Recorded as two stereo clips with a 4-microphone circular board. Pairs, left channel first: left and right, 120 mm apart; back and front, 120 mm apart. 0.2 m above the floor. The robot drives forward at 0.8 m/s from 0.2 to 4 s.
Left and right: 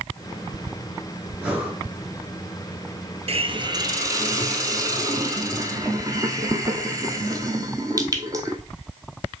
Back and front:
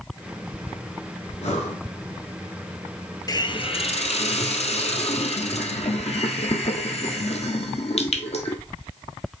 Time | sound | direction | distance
1.4 | breathing | 170° right | 2 m
3.3 | a hiss | 120° right | 0.6 m